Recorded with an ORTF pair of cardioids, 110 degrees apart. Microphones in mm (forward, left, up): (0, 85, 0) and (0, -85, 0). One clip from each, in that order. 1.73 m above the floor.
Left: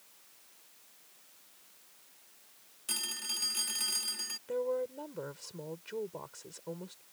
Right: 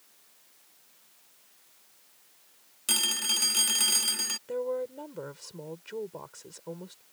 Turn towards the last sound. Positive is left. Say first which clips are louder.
# right 2 dB
turn(degrees=-15)